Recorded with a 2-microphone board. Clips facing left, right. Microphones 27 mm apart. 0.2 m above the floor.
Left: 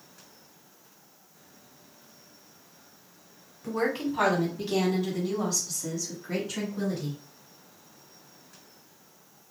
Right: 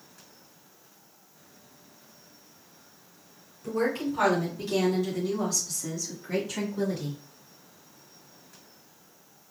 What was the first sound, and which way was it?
A woman speaking, 25° left (ahead or behind).